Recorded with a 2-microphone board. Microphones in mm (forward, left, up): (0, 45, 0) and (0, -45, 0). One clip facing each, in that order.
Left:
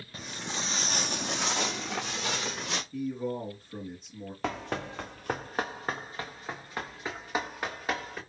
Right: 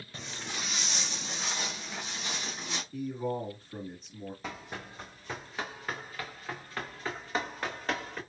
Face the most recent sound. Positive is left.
turn(degrees=5)  # may be behind; listen again after turning